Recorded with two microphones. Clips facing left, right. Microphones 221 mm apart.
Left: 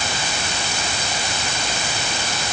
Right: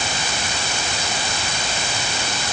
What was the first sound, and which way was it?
Only background noise.